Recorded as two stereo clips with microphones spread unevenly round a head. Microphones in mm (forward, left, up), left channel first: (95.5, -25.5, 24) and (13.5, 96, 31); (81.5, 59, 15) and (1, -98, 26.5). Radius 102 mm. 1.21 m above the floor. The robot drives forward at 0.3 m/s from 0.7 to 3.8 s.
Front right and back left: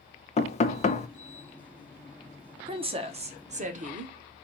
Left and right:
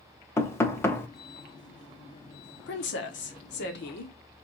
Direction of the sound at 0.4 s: 15° right.